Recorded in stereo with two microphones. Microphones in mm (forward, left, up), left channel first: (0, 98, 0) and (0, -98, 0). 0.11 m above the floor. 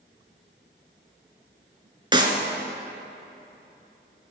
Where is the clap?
25° right (ahead or behind), 1.1 m.